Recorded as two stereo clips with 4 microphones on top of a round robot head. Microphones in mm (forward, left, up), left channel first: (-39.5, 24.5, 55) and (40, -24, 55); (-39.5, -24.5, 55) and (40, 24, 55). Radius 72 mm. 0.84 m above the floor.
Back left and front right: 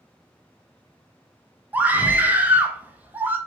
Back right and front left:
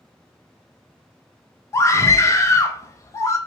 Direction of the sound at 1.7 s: 100° right.